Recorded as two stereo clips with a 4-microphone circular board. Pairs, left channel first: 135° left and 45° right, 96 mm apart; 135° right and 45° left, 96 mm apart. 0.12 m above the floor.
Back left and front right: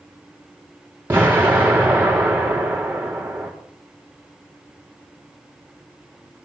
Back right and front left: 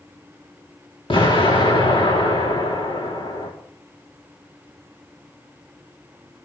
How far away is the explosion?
About 4.5 m.